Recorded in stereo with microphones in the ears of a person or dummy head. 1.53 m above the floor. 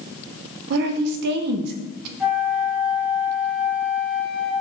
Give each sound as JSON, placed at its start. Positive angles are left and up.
{"t": 0.7, "sound": "a woman speaking", "side_deg": -60, "distance_m": 0.5}
{"t": 2.2, "sound": "a flute", "side_deg": -5, "distance_m": 0.8}